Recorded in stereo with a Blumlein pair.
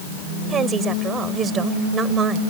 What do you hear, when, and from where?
0.5 s a woman speaking: 20° right